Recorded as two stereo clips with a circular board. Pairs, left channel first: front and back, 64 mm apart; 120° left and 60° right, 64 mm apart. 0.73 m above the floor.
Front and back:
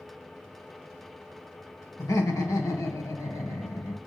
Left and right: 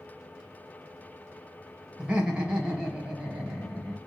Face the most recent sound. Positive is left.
turn(degrees=15)